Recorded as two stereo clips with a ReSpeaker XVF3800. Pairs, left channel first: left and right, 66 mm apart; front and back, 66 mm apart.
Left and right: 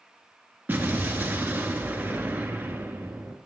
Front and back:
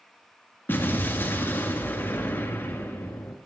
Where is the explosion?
40° right, 2 m.